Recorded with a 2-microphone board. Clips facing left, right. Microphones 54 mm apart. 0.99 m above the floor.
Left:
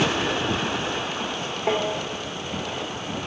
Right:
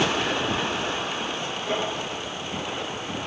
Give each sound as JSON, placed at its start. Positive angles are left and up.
{"t": 1.7, "sound": "tapping", "side_deg": 85, "distance_m": 2.5}